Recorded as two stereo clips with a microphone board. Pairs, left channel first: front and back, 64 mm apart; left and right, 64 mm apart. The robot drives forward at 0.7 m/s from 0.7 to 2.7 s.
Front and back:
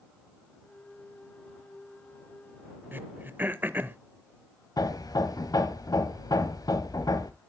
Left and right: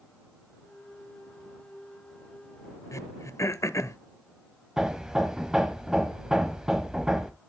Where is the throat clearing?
125° left, 0.6 m.